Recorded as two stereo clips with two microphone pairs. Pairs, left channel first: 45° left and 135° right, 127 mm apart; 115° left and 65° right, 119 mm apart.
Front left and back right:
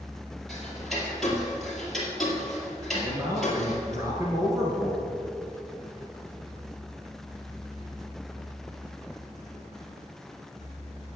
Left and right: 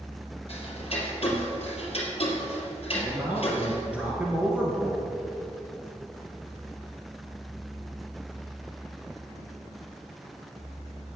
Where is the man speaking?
135° right, 1.6 m.